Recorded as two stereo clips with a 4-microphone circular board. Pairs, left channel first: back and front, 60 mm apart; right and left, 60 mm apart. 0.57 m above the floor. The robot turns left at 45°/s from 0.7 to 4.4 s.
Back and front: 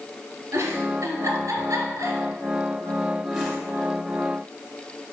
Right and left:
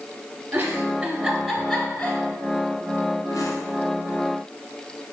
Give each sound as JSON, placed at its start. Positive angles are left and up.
{"t": 0.5, "sound": "a giggle", "azimuth_deg": 25, "distance_m": 1.3}